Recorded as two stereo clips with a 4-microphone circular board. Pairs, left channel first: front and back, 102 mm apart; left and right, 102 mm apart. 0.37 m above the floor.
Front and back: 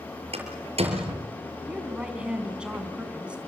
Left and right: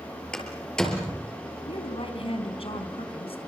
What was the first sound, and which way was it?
A door slam, 170° left.